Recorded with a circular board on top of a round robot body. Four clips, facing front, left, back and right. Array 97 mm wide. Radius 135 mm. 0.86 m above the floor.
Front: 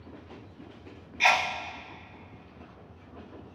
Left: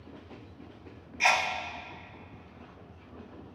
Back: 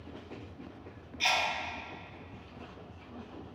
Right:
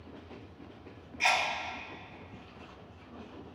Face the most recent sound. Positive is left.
turn(degrees=15)